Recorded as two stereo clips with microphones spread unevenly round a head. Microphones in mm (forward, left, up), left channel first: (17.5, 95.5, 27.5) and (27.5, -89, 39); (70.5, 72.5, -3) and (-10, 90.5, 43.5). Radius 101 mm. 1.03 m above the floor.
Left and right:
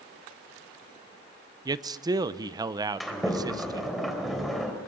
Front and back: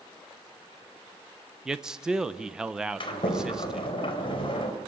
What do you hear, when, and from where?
1.6 s a man speaking: 40° right, 0.8 m
3.0 s a sliding door: 5° left, 4 m